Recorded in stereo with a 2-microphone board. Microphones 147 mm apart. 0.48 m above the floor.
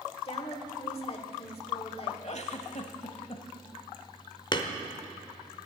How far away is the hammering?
About 0.9 m.